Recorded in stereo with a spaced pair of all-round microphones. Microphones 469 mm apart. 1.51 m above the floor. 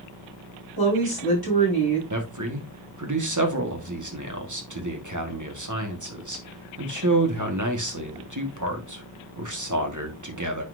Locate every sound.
0.8 s a woman speaking: 50° left (ahead or behind), 4.5 m
2.1 s a man speaking: 40° right (ahead or behind), 1.6 m